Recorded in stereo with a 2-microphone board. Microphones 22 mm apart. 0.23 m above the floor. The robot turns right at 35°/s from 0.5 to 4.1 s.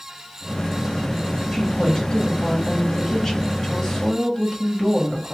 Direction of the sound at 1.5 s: 20° left (ahead or behind).